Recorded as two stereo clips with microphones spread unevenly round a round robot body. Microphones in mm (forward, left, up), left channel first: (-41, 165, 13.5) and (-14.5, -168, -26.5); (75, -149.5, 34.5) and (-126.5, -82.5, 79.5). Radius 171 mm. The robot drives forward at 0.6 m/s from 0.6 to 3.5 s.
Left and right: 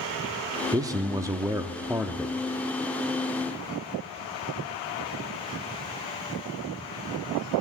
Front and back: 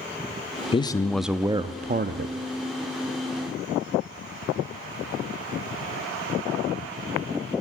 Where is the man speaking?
25° right, 0.7 m; by 2.4 s 165° right, 0.9 m.